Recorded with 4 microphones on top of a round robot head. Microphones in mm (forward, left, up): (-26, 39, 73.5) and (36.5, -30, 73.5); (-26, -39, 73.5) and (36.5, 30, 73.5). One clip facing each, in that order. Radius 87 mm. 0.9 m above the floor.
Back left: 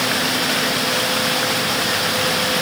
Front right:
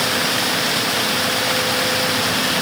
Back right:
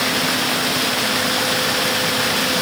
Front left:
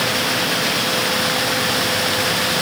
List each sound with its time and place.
Only background noise.